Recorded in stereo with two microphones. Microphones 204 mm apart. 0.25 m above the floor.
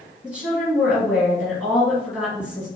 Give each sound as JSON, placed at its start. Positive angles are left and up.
{"t": 0.2, "sound": "a woman speaking", "side_deg": -5, "distance_m": 1.8}